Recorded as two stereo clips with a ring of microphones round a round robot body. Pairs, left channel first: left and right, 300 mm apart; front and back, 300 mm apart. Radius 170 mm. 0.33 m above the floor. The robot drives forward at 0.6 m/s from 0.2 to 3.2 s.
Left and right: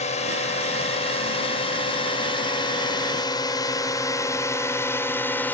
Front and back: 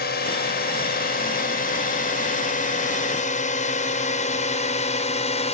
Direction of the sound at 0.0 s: 35° left.